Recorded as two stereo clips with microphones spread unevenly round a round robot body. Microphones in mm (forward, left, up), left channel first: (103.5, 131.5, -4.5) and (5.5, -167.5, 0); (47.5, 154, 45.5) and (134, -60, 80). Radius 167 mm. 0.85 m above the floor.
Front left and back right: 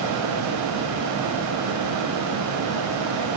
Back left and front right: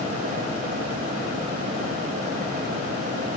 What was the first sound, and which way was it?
Only background noise.